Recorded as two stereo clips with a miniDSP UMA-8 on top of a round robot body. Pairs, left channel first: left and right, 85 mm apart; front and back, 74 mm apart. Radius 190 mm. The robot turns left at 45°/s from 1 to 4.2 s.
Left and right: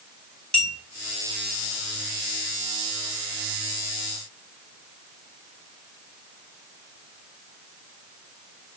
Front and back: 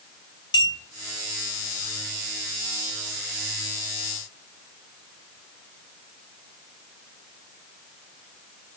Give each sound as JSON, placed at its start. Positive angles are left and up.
{"t": 0.5, "sound": "a clink", "azimuth_deg": 10, "distance_m": 3.0}